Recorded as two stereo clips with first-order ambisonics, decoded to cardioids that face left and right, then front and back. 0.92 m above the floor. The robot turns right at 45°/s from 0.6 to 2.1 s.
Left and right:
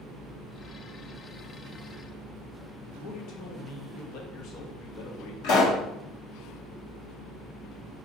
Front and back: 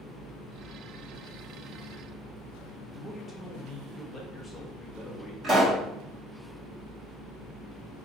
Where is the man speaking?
80° left, 0.7 m.